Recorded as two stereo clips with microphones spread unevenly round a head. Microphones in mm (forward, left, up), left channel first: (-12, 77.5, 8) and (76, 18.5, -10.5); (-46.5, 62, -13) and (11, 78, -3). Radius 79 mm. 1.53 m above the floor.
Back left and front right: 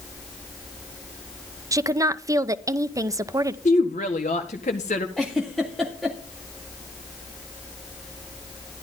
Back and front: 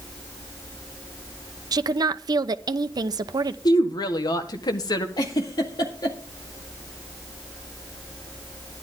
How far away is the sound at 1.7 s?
About 0.8 m.